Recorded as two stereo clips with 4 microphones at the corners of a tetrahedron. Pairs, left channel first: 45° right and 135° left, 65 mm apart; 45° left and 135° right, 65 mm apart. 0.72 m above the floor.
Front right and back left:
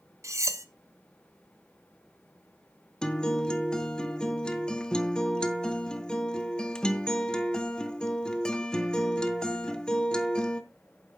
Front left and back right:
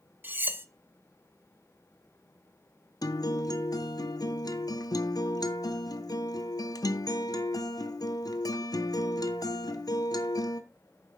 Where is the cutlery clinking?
170° left, 0.6 m.